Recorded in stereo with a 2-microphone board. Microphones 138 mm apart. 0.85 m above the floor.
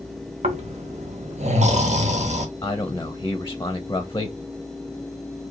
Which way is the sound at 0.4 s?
55° right (ahead or behind).